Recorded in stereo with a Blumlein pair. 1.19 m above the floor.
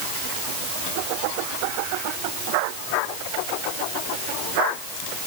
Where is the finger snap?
I don't hear a finger snap.